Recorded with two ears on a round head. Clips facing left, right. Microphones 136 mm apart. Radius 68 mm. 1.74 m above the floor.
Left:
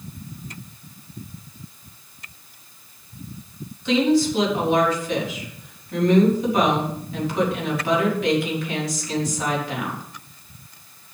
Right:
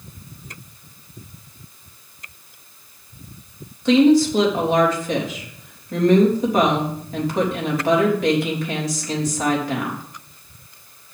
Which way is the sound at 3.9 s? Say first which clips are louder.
Right 5 dB; 35° right (ahead or behind).